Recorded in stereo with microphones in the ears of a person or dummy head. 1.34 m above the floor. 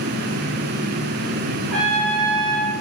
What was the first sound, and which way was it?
A trumpet, centre (ahead or behind).